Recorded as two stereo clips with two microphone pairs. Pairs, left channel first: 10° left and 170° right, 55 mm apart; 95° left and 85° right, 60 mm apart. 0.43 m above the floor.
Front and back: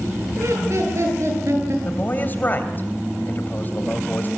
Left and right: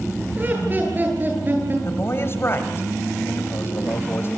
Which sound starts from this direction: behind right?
Laughter, at 0.4 s.